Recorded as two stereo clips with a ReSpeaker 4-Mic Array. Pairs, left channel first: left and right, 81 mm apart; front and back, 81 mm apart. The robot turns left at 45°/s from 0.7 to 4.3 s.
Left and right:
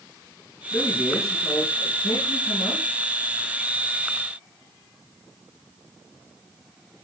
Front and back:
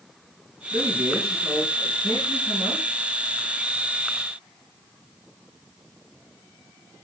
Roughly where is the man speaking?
Behind left.